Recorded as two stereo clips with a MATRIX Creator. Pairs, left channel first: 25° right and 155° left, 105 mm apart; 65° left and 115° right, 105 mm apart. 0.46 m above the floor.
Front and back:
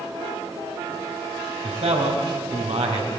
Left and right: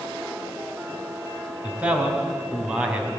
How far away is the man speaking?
About 3.5 m.